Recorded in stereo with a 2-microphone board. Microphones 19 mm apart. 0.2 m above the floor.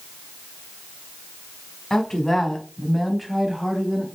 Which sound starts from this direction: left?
A woman speaking, at 1.9 s.